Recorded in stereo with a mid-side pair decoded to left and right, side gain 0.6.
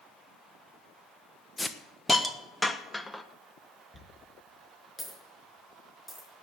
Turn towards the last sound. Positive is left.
turn(degrees=10)